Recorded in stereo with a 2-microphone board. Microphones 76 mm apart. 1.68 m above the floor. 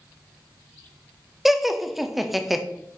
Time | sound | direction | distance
1.4 | laughter | centre (ahead or behind) | 0.7 m